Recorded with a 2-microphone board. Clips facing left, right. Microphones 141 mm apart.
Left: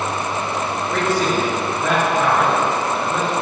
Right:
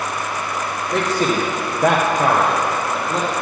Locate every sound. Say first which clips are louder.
0.9 s a man speaking: right 1 dB; 30° right (ahead or behind), 1.1 m; by 3.3 s 20° right (ahead or behind), 1.9 m